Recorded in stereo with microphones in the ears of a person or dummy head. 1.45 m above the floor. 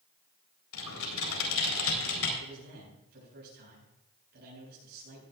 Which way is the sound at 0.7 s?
85° left.